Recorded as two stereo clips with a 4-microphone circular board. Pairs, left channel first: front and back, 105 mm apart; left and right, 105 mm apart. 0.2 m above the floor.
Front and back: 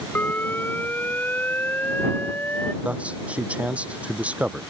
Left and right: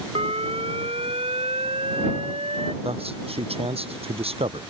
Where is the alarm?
70° right.